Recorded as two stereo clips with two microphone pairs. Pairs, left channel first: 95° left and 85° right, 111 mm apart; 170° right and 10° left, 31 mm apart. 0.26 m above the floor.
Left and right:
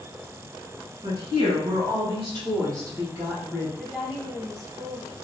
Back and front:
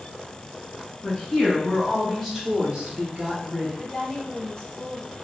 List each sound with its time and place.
1.0 s a woman speaking: 115° right, 2.0 m; by 3.7 s 5° right, 1.6 m
3.8 s a woman speaking: 155° right, 1.1 m